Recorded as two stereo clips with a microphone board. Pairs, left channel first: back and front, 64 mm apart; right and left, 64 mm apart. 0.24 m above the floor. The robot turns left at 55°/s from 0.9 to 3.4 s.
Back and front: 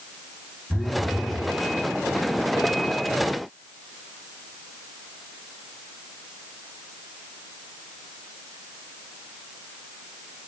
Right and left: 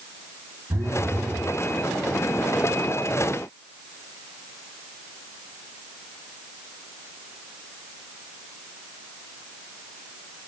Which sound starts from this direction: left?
A phone buzzing, at 0.7 s.